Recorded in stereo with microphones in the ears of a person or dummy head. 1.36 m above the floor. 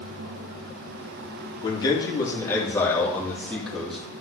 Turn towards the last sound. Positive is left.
turn(degrees=0)  # may be behind; listen again after turning